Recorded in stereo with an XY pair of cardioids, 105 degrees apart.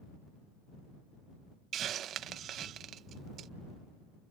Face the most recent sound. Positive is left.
turn(degrees=-65)